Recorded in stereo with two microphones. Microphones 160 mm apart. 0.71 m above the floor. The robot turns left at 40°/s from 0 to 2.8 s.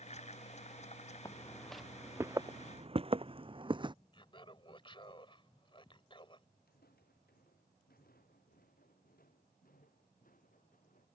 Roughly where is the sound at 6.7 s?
Left.